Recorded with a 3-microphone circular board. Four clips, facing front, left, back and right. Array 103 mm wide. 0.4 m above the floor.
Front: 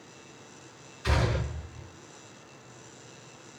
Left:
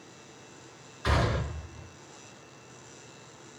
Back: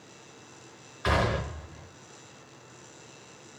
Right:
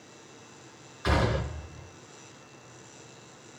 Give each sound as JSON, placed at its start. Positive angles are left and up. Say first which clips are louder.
{"t": 1.0, "sound": "a gunshot", "louder": "right 1 dB, back 3 dB", "azimuth_deg": -175, "distance_m": 0.8}